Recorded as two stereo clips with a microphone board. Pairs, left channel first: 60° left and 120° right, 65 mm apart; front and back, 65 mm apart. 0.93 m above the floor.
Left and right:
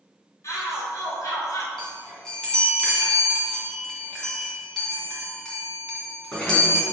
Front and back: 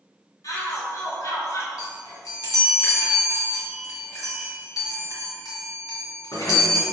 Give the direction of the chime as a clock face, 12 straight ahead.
1 o'clock.